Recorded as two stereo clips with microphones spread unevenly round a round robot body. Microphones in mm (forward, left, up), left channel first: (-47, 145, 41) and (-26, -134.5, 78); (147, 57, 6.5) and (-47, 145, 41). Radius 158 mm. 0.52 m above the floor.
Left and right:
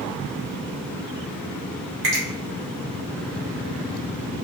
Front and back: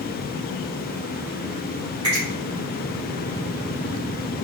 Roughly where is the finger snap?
Behind right.